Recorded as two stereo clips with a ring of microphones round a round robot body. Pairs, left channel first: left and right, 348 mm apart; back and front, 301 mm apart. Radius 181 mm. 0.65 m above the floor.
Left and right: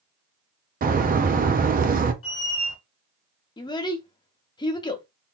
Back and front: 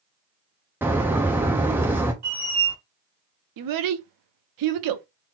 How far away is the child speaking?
About 0.7 m.